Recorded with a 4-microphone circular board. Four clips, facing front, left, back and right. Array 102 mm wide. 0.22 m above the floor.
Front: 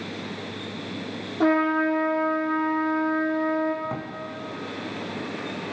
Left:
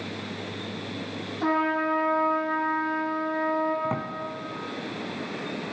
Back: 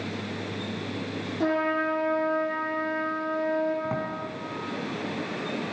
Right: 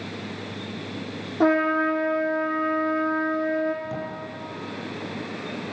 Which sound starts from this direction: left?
A drawer, at 3.8 s.